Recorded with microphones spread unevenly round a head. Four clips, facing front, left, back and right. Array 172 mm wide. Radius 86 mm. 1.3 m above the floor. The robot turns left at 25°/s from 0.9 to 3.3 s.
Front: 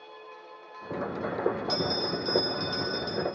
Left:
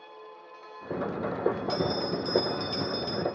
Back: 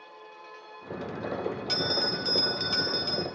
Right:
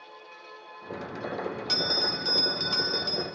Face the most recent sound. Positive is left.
turn(degrees=-165)